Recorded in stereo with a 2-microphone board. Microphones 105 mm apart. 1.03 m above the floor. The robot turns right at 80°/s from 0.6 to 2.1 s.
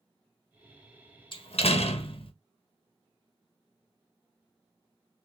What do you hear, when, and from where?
1.3 s a door slam: 55° left, 0.7 m; by 2.3 s 120° left, 0.7 m